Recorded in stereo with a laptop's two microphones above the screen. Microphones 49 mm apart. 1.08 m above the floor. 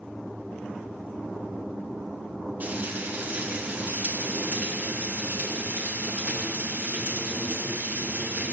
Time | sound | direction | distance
2.6 | frying | 40° right (ahead or behind) | 3 m